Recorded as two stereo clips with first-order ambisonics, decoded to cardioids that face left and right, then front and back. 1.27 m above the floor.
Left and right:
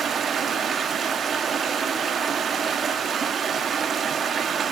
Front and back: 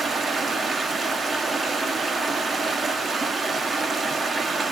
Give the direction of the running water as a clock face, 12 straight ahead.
4 o'clock.